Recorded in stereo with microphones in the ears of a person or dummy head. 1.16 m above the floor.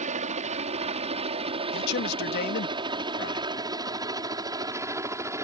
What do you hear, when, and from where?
0.0 s a helicopter: 35° right (ahead or behind); by 5.4 s 15° right (ahead or behind)
1.7 s a man speaking: 65° left (ahead or behind)